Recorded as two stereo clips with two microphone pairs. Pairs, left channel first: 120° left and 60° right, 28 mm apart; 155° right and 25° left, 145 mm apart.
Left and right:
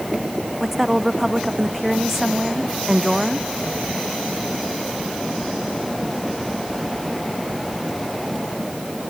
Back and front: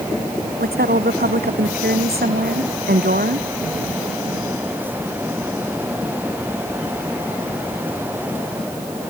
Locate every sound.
0.6 s a woman speaking: 20° left; by 3.5 s 25° left